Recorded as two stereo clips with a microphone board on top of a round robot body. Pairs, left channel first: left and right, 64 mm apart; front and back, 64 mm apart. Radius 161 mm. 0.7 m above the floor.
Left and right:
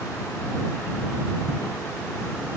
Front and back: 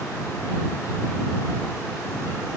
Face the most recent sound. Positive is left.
No sound to turn to.